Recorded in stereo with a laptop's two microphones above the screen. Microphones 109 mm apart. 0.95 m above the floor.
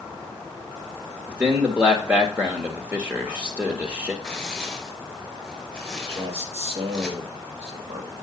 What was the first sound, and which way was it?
A man speaking, 15° right (ahead or behind).